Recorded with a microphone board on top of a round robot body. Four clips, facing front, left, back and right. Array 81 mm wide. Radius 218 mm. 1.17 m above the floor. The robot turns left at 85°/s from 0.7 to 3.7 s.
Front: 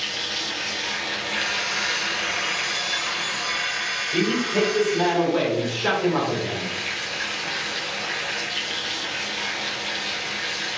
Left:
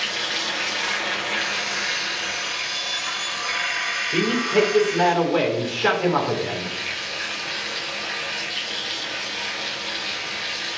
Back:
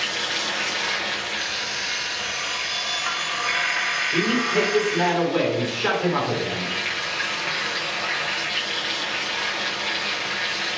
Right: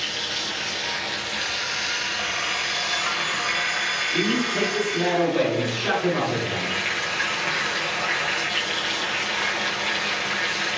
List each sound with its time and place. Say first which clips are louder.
0.0 s running water: left 3 dB, back 4 dB; 145° left, 0.8 m; by 10.8 s 110° right, 0.8 m
1.4 s an alarm clock: left 2 dB, front 3 dB; straight ahead, 2 m; by 5.1 s 160° left, 2 m
4.1 s a man speaking: left 5 dB, even; 105° left, 2.5 m